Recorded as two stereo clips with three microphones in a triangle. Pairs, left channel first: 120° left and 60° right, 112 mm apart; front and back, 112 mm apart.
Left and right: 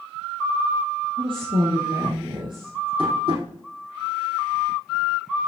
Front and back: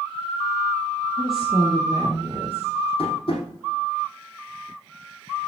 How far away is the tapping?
About 5 m.